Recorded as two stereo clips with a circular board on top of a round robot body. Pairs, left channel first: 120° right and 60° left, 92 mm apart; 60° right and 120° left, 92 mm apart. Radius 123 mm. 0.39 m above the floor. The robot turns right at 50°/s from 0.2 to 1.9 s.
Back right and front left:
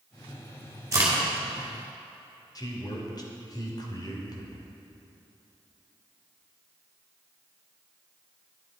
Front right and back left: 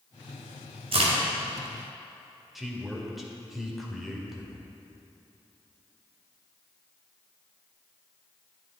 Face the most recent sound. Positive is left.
turn(degrees=-150)